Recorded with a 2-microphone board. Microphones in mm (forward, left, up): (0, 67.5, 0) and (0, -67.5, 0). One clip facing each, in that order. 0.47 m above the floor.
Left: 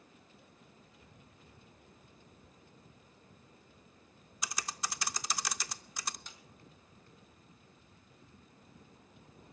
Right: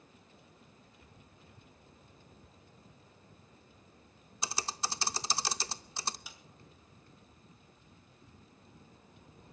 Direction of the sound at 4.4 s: 30° right (ahead or behind).